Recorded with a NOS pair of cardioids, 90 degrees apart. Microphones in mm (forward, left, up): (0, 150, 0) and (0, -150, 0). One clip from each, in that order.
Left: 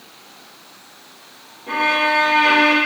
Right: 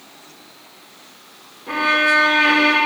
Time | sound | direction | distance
1.7 | a violin | 5° right | 1.2 m